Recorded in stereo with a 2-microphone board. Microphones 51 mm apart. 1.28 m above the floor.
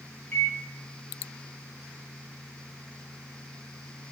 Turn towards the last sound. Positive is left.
turn(degrees=45)  # may be behind; listen again after turning